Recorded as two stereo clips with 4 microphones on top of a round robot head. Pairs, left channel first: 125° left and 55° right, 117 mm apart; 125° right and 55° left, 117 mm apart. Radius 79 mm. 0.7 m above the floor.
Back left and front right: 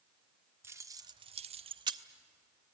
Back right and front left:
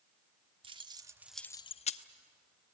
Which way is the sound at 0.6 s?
15° left.